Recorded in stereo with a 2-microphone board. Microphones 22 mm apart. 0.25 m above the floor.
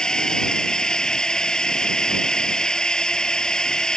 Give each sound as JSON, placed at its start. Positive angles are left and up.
{"t": 0.0, "sound": "a drone", "side_deg": 35}